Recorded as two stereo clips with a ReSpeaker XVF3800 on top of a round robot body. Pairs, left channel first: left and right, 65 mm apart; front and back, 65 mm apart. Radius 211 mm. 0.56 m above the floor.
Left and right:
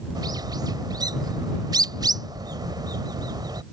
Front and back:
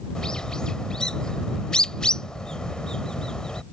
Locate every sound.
0.1 s a bird: 80° right